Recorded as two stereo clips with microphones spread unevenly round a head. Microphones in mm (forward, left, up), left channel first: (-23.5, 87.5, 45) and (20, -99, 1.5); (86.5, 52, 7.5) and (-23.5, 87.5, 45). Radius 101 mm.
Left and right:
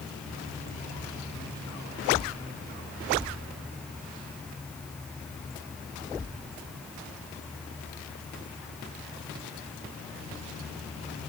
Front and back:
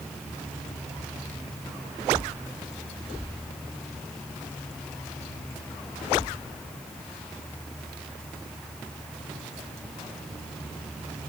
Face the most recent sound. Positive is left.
No sound to turn to.